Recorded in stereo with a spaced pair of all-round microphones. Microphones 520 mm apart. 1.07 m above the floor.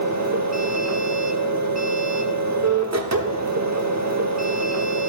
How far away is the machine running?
About 0.9 m.